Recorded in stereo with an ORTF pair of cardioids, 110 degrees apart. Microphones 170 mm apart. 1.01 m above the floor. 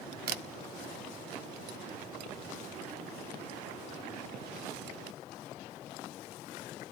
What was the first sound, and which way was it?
A camera shutter, 70° right.